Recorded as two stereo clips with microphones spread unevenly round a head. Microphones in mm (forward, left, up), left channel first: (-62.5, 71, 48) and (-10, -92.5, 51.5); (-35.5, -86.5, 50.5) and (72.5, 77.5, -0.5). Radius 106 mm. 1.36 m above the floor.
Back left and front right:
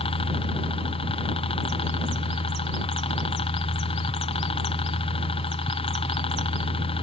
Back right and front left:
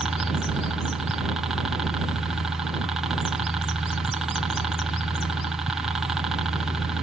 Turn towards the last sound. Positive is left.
turn(degrees=120)